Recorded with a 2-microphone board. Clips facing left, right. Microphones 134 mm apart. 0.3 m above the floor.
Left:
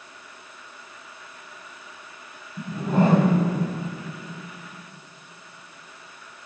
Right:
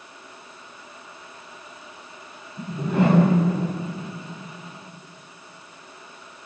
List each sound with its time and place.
2.6 s a whoosh: 45° left (ahead or behind), 8 m